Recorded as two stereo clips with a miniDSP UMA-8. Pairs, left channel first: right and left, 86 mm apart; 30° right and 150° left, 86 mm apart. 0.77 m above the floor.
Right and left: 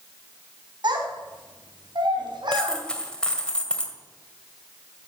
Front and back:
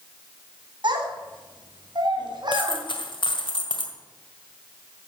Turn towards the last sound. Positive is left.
turn(degrees=-10)